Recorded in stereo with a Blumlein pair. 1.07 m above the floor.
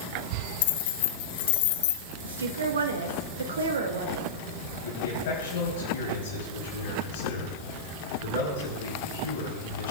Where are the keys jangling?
50° left, 0.7 m.